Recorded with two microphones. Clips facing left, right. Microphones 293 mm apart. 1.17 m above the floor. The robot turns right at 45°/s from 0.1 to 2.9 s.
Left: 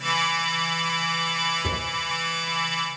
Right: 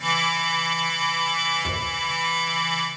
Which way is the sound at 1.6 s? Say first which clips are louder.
Left 2 dB; 35° left (ahead or behind).